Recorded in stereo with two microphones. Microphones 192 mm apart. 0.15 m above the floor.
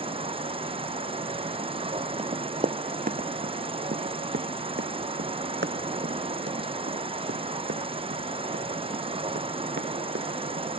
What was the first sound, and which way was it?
An insect, 30° right (ahead or behind).